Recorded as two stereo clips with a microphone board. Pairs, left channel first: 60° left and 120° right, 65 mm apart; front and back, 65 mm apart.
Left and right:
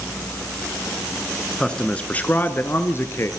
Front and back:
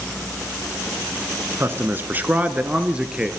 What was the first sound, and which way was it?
A man speaking, 140° left.